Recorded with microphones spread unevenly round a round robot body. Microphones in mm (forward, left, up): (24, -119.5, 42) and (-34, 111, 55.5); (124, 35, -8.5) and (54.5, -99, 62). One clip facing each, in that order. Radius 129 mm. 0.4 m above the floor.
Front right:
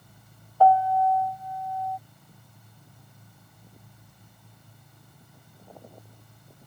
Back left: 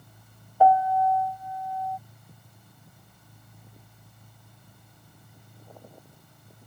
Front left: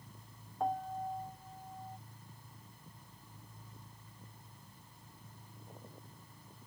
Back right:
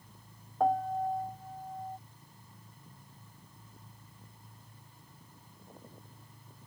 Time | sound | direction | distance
0.6 | a piano | straight behind | ?